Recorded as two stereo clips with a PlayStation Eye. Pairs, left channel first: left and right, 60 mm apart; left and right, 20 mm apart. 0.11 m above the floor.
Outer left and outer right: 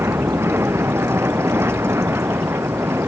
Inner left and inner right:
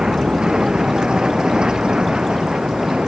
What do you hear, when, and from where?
0.0 s an aircraft: 45° right (ahead or behind)